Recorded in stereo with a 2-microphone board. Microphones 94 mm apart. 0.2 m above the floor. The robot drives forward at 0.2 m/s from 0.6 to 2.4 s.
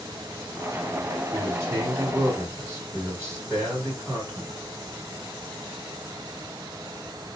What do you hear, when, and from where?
1.3 s a man speaking: 30° right (ahead or behind), 1.6 m